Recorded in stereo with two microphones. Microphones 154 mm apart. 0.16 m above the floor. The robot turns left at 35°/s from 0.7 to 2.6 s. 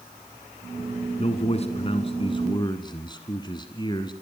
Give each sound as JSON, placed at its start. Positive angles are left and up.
{"t": 1.2, "sound": "a man speaking", "azimuth_deg": 95, "distance_m": 1.7}